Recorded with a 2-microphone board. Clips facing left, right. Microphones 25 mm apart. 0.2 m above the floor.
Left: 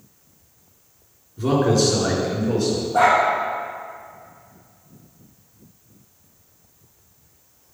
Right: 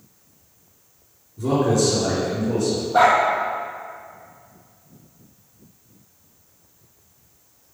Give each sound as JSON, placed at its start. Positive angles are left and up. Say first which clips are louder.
{"t": 1.4, "sound": "a man speaking", "louder": "left 1 dB", "side_deg": 60, "distance_m": 3.0}
{"t": 2.9, "sound": "a dog barking", "louder": "right 1 dB", "side_deg": -35, "distance_m": 2.0}